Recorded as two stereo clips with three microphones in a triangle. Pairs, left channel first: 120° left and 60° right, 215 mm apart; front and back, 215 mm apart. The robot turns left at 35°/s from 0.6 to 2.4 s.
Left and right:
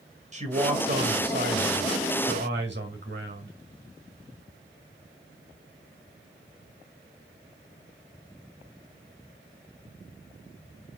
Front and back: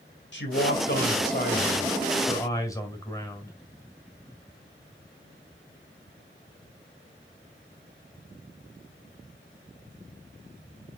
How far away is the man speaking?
About 2 m.